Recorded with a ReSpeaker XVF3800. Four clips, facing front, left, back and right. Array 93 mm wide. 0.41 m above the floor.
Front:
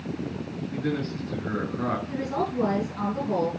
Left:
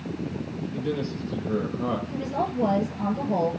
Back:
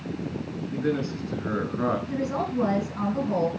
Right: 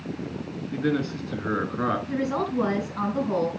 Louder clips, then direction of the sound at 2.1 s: Right 2 dB, even; 100° right.